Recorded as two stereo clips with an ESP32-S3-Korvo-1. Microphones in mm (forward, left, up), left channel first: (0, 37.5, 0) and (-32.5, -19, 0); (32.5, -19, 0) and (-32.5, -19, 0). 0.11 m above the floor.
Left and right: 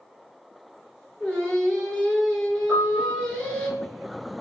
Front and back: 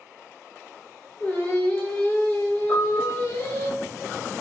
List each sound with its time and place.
1.2 s singing: 5° right, 0.9 m
2.7 s a piano: 50° right, 2.0 m